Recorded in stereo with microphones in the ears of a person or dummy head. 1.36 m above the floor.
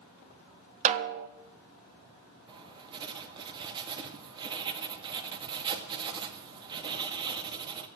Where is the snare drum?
40° right (ahead or behind), 1.2 m.